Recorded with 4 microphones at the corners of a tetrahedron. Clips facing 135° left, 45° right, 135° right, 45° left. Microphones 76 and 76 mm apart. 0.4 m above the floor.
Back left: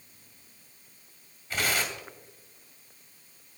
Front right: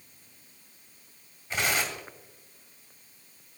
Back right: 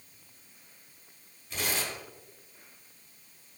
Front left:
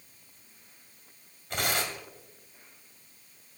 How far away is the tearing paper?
About 2.5 m.